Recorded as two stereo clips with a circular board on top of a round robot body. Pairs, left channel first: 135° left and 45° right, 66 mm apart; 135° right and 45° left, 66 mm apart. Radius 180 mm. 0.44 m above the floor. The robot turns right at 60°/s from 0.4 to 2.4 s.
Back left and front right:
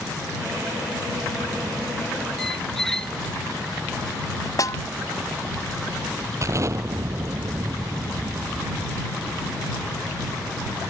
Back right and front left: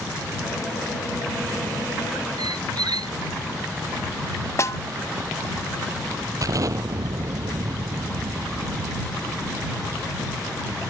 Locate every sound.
2.4 s a squeak: 50° left; by 3.1 s 55° left
4.6 s a snare drum: 175° left
6.4 s an explosion: 5° left